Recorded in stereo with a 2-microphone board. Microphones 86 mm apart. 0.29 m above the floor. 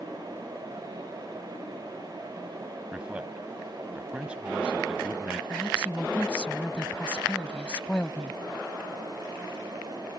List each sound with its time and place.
2.9 s a man speaking: 15° right (ahead or behind)
5.5 s a woman speaking: 15° left (ahead or behind)